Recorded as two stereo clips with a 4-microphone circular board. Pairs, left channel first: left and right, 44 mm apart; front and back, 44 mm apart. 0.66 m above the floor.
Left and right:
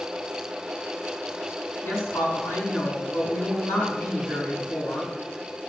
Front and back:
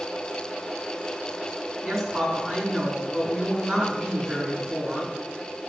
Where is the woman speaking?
100° left, 5 m.